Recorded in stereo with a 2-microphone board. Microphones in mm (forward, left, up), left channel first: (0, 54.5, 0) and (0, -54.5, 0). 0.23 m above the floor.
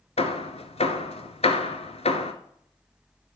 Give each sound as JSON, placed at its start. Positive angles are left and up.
{"t": 0.2, "sound": "hammering", "side_deg": 75, "distance_m": 0.9}